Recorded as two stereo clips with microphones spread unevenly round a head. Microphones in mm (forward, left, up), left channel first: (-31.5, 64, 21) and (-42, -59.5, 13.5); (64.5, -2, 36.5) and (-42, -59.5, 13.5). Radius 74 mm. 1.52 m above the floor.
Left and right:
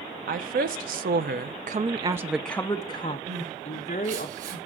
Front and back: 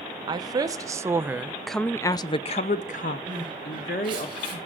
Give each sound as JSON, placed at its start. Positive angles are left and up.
{"t": 0.3, "sound": "a woman speaking", "azimuth_deg": -95, "distance_m": 1.4}
{"t": 3.3, "sound": "crying", "azimuth_deg": -105, "distance_m": 6.5}